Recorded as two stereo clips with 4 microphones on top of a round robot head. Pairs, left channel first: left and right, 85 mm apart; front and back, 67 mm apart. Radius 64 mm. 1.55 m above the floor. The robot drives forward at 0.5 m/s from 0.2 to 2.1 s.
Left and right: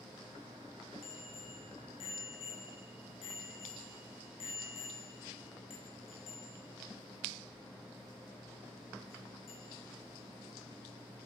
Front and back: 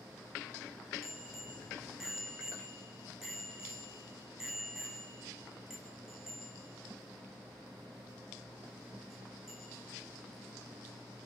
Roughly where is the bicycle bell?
Left.